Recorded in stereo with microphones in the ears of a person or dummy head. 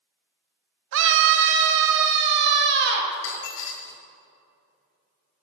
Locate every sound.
0.9 s a scream: 65° right (ahead or behind), 1.0 m; by 3.0 s 60° right (ahead or behind), 2.5 m
3.1 s a dropped coin: 65° left (ahead or behind), 1.9 m